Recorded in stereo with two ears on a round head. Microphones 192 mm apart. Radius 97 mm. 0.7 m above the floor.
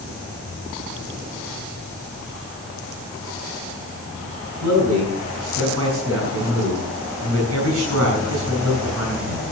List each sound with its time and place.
4.6 s a man speaking: 80° right, 5.5 m